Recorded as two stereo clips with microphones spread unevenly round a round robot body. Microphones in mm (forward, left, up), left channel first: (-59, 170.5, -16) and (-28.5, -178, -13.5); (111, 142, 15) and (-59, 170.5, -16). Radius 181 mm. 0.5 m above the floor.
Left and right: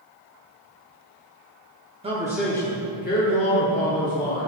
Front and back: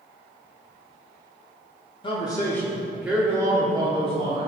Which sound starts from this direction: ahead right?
A man speaking, at 2.0 s.